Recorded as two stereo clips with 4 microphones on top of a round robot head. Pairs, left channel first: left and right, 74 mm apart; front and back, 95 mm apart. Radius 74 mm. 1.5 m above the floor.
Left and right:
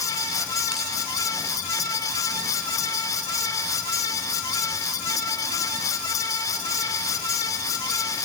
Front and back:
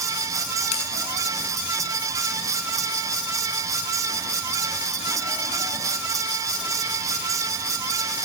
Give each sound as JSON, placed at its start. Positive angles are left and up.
{"t": 0.7, "sound": "a bell", "azimuth_deg": -5, "distance_m": 7.5}